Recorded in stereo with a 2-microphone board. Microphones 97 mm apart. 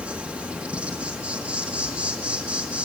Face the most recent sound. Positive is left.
turn(degrees=-10)  # may be behind; listen again after turning